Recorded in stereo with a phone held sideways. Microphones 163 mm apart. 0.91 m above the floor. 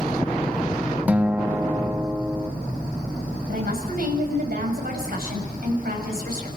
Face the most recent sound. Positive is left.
turn(degrees=-70)  # may be behind; listen again after turning